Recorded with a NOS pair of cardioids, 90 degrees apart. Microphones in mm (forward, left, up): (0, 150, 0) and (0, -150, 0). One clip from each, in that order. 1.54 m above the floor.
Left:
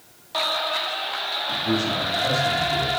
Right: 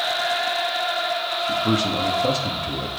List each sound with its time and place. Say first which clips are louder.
1.5 s a man speaking: right 2 dB; 60° right, 3 m